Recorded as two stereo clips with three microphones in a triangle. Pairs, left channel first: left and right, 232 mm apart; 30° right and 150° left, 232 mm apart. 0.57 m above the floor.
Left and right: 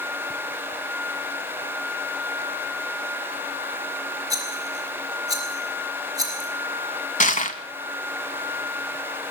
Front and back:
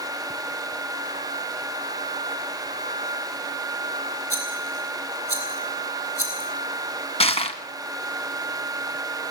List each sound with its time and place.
4.3 s a rattle: 15° right, 5.5 m
7.2 s crushing: 30° left, 1.4 m